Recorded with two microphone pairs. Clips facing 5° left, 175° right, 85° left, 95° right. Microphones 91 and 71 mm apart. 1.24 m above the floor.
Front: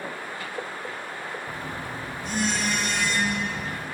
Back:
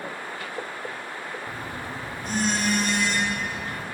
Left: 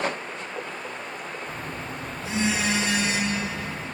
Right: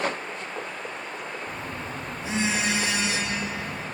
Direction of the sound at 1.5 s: 160° right.